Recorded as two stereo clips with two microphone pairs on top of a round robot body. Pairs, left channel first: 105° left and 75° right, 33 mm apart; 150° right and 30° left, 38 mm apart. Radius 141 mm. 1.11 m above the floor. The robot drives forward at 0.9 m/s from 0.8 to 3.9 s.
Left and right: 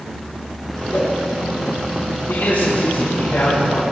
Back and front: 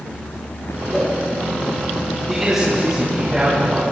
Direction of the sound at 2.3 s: 110° left.